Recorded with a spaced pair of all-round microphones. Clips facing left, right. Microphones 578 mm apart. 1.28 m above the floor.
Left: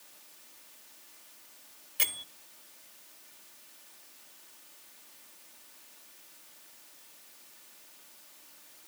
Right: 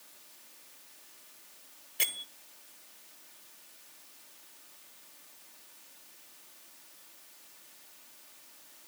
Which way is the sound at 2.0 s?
30° left (ahead or behind).